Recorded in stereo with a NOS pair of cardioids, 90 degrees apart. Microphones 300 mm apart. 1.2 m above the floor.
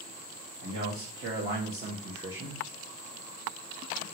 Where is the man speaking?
50° right, 1.5 m; by 2.6 s 5° right, 1.1 m.